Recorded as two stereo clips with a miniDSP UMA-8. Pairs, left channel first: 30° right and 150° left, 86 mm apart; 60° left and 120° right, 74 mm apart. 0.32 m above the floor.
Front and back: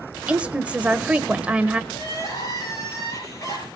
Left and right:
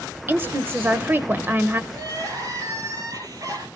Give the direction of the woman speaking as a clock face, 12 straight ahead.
5 o'clock.